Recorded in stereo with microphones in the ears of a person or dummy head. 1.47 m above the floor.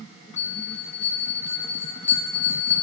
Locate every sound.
0.4 s a bell: 10° left (ahead or behind), 0.9 m